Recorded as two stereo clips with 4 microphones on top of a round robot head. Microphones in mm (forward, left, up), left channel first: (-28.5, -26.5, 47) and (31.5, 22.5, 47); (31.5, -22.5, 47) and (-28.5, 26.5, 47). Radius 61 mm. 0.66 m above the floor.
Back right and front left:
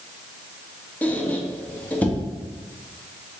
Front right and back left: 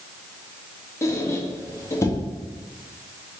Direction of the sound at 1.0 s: 75° right.